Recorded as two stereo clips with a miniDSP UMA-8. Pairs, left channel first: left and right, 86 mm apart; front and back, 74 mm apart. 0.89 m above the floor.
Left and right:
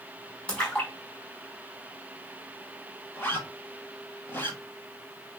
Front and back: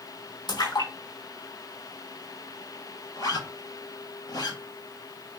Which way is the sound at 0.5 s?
10° left.